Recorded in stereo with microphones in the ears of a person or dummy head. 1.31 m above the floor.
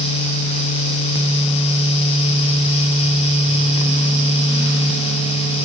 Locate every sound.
Only background noise.